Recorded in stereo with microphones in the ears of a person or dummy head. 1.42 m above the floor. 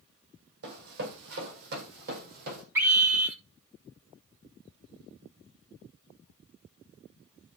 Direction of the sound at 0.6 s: 50° right (ahead or behind).